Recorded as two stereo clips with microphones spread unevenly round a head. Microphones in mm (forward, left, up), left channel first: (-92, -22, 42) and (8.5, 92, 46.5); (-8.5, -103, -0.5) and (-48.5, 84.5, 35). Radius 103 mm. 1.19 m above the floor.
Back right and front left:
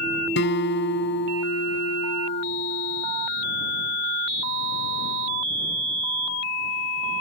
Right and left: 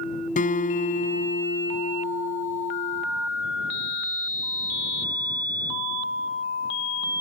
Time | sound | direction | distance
0.4 | a guitar | 130° right | ?